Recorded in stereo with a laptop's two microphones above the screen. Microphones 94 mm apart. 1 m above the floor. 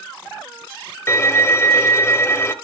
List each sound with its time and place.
1.1 s a violin: 25° left (ahead or behind), 1.0 m